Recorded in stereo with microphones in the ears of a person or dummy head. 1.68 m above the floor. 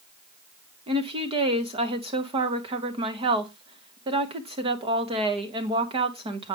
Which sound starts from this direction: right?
A woman speaking, at 0.9 s.